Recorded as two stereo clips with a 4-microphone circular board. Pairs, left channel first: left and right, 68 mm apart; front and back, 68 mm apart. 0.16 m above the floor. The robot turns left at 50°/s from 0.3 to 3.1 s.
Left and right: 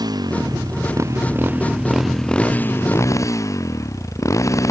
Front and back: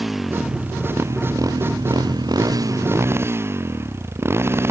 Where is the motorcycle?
90° right; by 4.7 s 130° left.